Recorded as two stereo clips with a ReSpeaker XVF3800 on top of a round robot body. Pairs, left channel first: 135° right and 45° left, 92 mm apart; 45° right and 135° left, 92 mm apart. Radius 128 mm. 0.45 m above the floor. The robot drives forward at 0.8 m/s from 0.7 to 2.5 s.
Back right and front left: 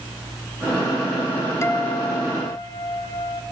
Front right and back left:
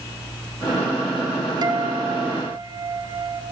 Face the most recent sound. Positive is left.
turn(degrees=170)